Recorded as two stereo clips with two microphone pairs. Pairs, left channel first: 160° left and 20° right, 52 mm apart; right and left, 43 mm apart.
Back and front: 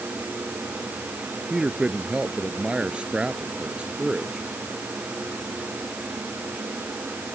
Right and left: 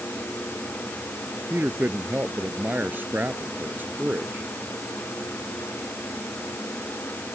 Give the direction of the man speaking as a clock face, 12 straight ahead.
10 o'clock.